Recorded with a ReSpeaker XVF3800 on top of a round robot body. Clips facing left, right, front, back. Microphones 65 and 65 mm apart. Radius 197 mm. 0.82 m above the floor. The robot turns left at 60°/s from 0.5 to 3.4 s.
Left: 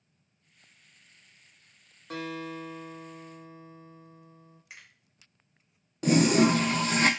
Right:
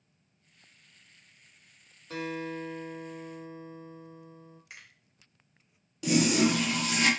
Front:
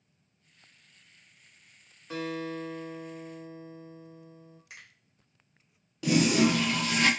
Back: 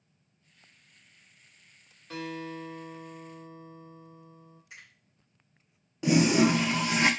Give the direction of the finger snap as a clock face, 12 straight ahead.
12 o'clock.